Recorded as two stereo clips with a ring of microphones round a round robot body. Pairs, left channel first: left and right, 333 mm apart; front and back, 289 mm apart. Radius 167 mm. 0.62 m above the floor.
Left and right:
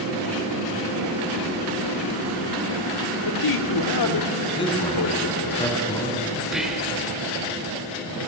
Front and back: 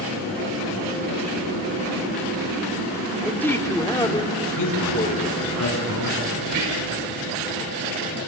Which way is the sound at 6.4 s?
Straight behind.